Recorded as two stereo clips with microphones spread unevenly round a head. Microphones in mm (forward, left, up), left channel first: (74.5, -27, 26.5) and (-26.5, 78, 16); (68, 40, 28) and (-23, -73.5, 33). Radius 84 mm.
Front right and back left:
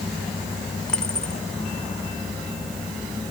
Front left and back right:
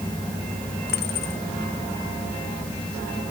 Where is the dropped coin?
40° left.